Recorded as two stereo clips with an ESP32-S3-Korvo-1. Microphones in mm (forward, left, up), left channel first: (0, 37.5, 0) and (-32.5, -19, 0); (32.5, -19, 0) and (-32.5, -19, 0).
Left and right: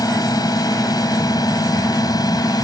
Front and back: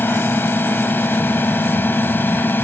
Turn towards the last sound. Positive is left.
turn(degrees=60)